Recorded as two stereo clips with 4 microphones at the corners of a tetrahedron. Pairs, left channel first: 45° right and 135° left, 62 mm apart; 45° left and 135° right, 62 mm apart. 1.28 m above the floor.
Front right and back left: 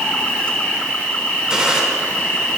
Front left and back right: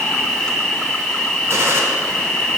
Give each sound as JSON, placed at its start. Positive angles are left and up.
{"t": 0.0, "sound": "an insect", "azimuth_deg": -10, "distance_m": 0.8}
{"t": 1.5, "sound": "a gunshot", "azimuth_deg": -150, "distance_m": 1.3}